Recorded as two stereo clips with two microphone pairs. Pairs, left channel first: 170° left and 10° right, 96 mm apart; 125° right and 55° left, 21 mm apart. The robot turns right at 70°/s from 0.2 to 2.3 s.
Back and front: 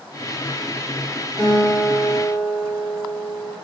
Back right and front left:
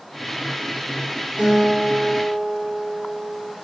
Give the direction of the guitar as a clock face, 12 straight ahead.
10 o'clock.